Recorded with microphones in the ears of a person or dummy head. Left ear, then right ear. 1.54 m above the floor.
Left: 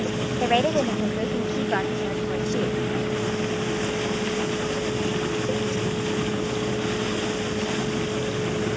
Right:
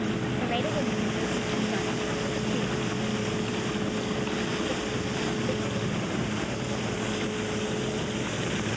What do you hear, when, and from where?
0.4 s a woman speaking: 35° left (ahead or behind); by 2.8 s 45° left (ahead or behind)